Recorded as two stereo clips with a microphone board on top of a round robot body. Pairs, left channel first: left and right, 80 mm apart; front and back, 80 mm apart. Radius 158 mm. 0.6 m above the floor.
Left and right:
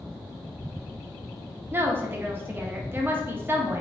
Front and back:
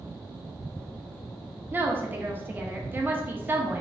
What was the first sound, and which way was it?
A woman speaking, 135° right.